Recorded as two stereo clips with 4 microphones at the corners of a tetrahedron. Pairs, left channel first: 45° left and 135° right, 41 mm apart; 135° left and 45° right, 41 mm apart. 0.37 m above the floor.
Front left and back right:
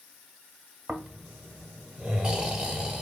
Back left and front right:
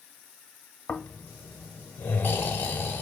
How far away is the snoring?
About 0.5 m.